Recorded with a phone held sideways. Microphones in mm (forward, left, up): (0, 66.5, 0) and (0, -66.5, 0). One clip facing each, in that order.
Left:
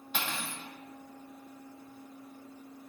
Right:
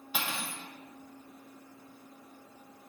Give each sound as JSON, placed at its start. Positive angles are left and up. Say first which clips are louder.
{"t": 0.1, "sound": "cutlery clinking", "louder": "even", "side_deg": -5, "distance_m": 0.7}